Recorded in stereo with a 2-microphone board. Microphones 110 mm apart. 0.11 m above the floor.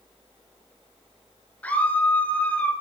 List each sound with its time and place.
1.6 s a scream: 15° left (ahead or behind), 1.4 m